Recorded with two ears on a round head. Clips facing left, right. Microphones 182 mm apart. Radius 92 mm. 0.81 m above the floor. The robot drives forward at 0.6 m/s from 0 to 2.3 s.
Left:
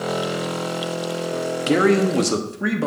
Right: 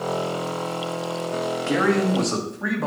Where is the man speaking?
45° left (ahead or behind), 1.0 m; by 2.9 s 40° left (ahead or behind), 1.2 m.